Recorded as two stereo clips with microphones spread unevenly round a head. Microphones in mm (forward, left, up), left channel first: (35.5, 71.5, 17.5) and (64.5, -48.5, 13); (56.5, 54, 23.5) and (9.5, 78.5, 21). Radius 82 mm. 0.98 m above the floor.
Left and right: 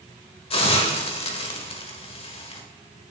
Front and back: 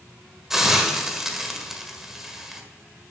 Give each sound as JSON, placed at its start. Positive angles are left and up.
{"t": 0.5, "sound": "a hiss", "azimuth_deg": 70, "distance_m": 1.5}